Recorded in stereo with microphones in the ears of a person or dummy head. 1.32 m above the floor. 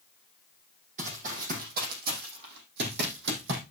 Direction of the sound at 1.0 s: 35° right (ahead or behind).